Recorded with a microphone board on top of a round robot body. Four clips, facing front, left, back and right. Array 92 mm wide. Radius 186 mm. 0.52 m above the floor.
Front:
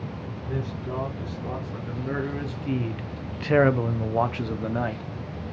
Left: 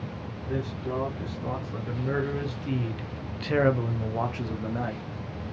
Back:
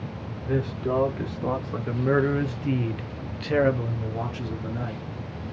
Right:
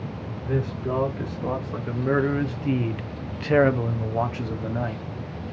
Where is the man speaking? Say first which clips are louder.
Right 5 dB, back 7 dB; 150° right, 1.7 m; by 5.0 s straight ahead, 1.3 m.